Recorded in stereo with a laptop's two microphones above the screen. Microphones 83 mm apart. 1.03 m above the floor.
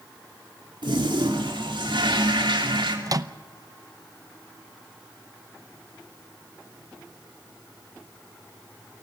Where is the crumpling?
No crumpling in this recording.